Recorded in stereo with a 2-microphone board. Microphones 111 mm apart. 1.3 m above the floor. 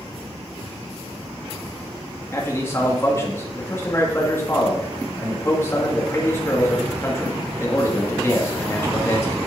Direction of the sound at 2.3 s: 25° left (ahead or behind).